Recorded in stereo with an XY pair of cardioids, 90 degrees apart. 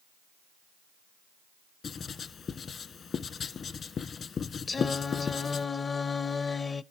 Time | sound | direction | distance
1.8 | writing | 60° left | 1.2 m
4.7 | singing | 35° left | 0.5 m